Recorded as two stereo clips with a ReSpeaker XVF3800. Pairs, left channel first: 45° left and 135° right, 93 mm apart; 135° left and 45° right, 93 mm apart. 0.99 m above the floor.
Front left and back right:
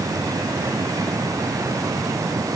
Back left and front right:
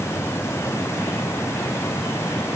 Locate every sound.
Only background noise.